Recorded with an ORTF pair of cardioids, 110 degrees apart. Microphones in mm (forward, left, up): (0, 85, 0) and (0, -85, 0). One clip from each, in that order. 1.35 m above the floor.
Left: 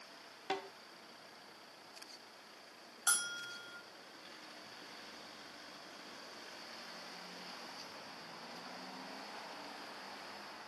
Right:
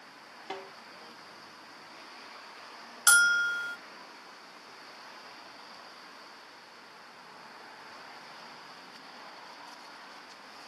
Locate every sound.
0.5 s a snare drum: 10° left, 1.4 m
3.1 s a bell: 55° right, 0.7 m